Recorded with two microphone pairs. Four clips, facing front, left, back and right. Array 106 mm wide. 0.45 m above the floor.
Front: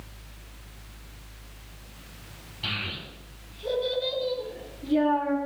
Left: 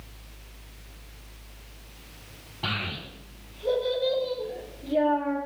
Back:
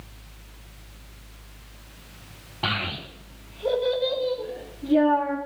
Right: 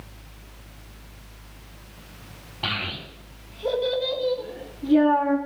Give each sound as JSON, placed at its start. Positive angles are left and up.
{"t": 2.6, "sound": "a child speaking", "azimuth_deg": -165, "distance_m": 2.0}